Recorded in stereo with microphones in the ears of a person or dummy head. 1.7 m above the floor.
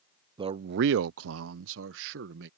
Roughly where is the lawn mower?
No lawn mower in this recording.